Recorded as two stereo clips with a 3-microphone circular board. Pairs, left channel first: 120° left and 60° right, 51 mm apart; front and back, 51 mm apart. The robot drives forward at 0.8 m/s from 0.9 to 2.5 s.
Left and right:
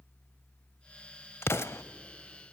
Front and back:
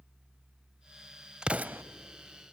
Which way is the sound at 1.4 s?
110° left.